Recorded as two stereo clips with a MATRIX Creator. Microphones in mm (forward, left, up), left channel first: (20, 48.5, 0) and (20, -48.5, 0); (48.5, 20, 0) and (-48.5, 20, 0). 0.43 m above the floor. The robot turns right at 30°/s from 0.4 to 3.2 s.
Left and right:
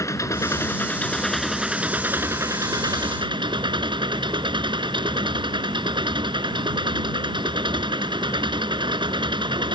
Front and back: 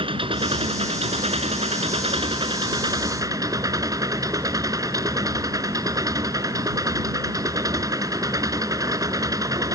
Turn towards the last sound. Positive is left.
turn(degrees=-125)